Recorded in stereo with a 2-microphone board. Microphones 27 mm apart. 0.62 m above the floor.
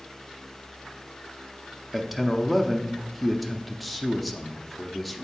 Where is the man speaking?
Centre (ahead or behind), 0.7 m.